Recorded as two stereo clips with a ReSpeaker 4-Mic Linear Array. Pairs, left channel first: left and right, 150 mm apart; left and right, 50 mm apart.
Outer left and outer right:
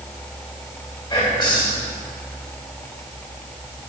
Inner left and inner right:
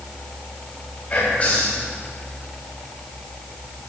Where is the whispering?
35° left (ahead or behind), 2 m.